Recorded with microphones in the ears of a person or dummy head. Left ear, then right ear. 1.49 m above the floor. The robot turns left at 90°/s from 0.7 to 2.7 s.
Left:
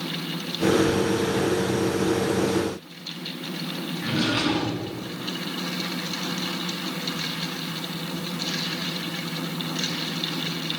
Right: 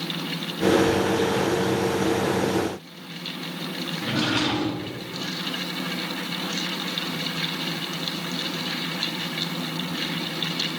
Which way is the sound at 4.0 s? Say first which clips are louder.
Even; 15° right (ahead or behind).